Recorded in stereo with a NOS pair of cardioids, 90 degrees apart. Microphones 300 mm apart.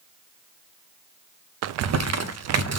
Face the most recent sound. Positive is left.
turn(degrees=-60)